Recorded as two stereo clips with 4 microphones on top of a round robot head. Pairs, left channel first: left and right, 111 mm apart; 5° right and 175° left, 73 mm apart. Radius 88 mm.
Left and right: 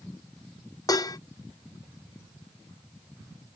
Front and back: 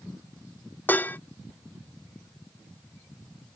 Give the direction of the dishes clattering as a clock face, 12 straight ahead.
10 o'clock.